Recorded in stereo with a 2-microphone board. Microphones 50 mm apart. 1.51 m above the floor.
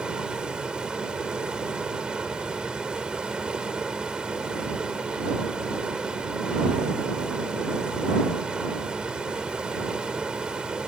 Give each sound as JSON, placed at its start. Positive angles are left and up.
{"t": 0.0, "sound": "running water", "side_deg": -20}